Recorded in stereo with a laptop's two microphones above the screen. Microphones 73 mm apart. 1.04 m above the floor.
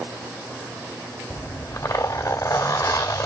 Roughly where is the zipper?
Left.